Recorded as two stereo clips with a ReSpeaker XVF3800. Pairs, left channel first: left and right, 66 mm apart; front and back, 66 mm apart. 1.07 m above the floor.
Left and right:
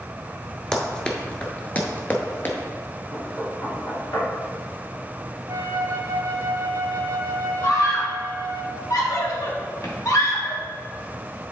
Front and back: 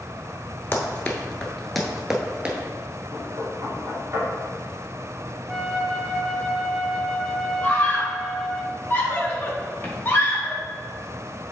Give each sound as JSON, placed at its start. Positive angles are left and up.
{"t": 0.7, "sound": "running footsteps", "azimuth_deg": 25, "distance_m": 1.1}
{"t": 3.1, "sound": "knocking", "azimuth_deg": 125, "distance_m": 2.5}
{"t": 5.5, "sound": "a flute", "azimuth_deg": -90, "distance_m": 0.7}
{"t": 7.6, "sound": "a scream", "azimuth_deg": 60, "distance_m": 1.4}